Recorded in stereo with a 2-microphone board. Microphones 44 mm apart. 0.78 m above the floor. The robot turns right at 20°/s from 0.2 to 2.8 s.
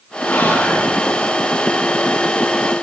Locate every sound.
0.3 s whispering: 50° left (ahead or behind), 1.5 m